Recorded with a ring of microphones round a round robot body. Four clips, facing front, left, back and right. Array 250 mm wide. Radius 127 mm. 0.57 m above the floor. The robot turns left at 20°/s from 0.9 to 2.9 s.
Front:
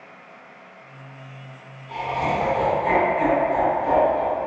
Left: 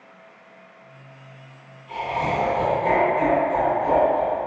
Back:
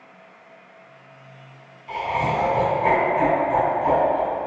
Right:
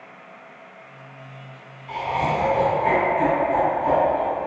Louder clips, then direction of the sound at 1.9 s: Right 1 dB, back 1 dB; 140° right.